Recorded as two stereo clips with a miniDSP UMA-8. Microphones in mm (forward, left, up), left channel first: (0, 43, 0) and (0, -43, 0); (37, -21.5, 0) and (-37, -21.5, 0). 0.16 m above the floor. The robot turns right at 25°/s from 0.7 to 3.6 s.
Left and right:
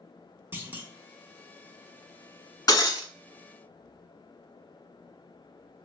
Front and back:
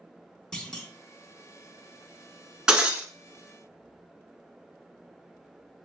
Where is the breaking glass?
105° left, 0.8 m; by 3.1 s 115° left, 0.8 m.